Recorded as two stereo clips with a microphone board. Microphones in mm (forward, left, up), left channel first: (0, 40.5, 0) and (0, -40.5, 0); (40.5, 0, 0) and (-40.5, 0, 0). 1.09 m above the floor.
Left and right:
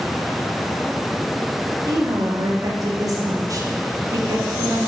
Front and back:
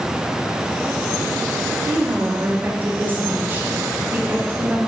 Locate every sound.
1.9 s a woman speaking: 120° right, 0.7 m